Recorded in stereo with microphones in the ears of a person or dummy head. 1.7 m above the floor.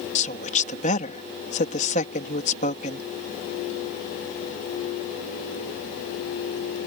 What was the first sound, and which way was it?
A woman speaking, 45° left (ahead or behind).